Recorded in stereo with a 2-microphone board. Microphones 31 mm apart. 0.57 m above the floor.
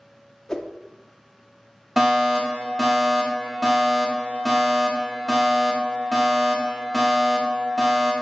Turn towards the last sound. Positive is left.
turn(degrees=-10)  # may be behind; listen again after turning